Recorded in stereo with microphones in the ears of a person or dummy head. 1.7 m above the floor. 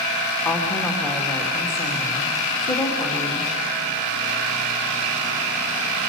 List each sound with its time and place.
0.5 s a woman speaking: 15° left (ahead or behind), 2.5 m